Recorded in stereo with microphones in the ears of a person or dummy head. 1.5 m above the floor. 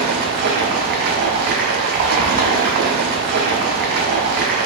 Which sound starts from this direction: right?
Running water, at 0.0 s.